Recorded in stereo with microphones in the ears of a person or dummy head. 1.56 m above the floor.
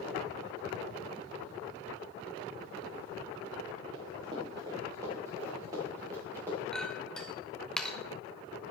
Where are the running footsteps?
30° right (ahead or behind), 6 m; by 6.6 s 15° right (ahead or behind), 8 m.